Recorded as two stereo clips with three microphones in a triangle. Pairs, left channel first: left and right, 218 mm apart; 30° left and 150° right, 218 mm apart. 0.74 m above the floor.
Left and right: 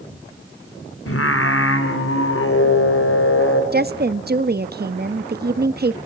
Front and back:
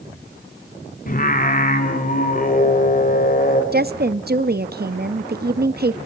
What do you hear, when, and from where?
1.1 s singing: 80° left, 1.9 m
3.7 s a woman speaking: 120° right, 0.6 m